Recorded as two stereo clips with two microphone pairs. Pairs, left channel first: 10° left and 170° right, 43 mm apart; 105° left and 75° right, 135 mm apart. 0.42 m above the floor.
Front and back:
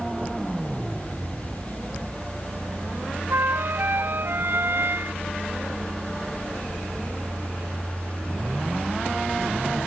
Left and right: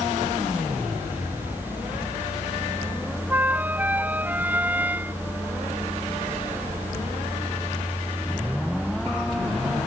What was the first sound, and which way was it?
A flute, 150° right.